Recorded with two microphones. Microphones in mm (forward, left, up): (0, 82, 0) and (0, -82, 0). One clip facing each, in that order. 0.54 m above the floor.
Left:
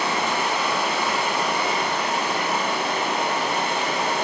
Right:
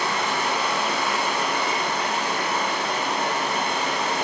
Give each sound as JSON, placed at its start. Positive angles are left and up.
{"t": 0.0, "sound": "running water", "side_deg": 30, "distance_m": 1.3}